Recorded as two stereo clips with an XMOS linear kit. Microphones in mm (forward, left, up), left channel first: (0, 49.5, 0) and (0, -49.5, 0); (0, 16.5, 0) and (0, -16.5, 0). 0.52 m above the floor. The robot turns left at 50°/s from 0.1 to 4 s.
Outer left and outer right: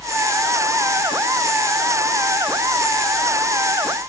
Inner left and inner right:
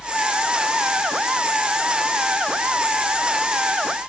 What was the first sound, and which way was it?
Only background noise.